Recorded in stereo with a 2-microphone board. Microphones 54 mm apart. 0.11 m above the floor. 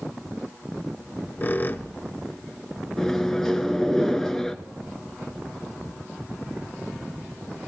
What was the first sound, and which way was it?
A squeak, 35° left (ahead or behind).